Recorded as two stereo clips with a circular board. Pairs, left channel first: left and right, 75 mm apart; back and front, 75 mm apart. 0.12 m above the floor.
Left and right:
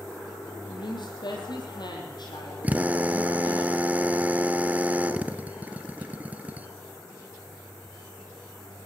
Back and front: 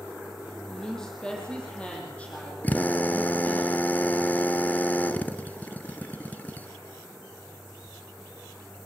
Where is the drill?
140° right, 1.1 m.